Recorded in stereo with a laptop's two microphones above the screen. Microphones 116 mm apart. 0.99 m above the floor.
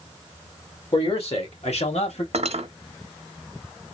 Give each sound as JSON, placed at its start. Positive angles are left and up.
{"t": 0.9, "sound": "a man speaking", "side_deg": 55, "distance_m": 2.0}
{"t": 2.3, "sound": "cutlery clinking", "side_deg": -65, "distance_m": 0.8}